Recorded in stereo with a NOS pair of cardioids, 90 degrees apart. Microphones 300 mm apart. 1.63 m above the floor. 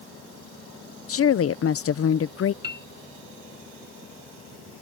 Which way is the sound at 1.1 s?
50° left.